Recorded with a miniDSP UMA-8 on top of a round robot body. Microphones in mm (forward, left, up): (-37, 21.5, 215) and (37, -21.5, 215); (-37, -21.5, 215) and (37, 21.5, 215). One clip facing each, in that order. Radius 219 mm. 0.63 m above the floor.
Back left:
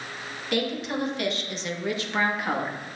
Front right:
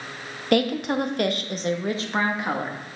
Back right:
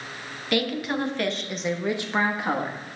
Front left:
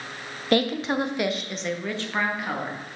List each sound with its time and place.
0.5 s a woman speaking: 15° right, 1.2 m; by 2.8 s 95° right, 1.6 m